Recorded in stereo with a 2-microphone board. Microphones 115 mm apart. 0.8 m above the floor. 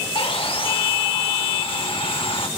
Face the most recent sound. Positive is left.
turn(degrees=50)  # may be behind; listen again after turning